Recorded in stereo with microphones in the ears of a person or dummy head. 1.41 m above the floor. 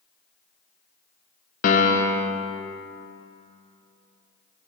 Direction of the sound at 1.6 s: 45° left (ahead or behind).